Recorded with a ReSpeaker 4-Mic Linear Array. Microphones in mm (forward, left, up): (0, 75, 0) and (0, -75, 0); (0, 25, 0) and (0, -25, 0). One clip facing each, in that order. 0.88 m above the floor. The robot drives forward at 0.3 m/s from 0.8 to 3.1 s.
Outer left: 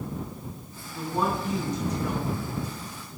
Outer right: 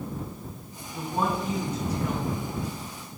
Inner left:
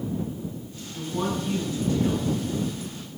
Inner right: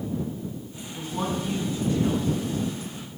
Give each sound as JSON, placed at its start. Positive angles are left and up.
{"t": 0.9, "sound": "a woman speaking", "side_deg": -10, "distance_m": 4.5}